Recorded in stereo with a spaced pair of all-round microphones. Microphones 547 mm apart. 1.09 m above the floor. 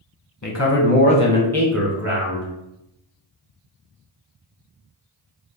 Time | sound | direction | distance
0.4 | a man speaking | 35° left (ahead or behind) | 0.7 m